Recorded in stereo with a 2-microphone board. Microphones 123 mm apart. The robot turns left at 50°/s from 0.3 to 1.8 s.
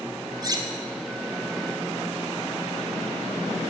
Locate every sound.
0.4 s cutlery clinking: 30° right (ahead or behind), 1.0 m; by 0.7 s 40° right (ahead or behind), 1.0 m